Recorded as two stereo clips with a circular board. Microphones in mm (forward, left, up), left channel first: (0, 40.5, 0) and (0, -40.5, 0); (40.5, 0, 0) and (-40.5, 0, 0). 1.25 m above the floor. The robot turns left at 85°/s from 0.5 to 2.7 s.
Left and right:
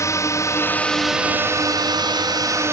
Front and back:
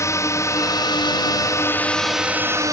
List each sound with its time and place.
0.0 s a drone: 45° left; by 2.7 s 140° right